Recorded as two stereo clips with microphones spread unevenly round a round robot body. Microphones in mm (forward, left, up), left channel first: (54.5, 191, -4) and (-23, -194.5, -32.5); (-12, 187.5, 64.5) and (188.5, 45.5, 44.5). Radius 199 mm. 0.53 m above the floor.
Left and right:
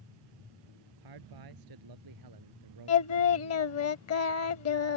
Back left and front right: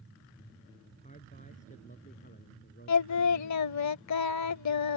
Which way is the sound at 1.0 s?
140° right.